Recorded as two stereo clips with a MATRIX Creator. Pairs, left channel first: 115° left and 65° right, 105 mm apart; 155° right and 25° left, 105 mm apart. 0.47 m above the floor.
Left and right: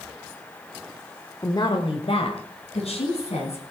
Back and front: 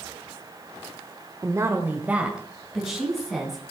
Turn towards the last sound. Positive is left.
turn(degrees=115)